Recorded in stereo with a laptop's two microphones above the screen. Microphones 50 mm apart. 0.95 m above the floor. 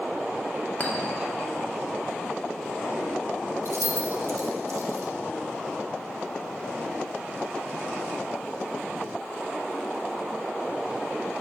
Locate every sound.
0.8 s a clink: 40° left (ahead or behind), 1.5 m
3.6 s keys jangling: 75° right (ahead or behind), 0.9 m